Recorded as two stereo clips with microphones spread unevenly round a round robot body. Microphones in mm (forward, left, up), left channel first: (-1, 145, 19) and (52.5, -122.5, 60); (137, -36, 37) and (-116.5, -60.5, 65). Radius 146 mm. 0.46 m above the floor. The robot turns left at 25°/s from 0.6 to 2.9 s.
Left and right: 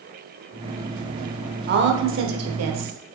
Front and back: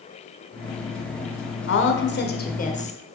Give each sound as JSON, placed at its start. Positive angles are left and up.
{"t": 1.7, "sound": "a woman speaking", "azimuth_deg": -25, "distance_m": 1.3}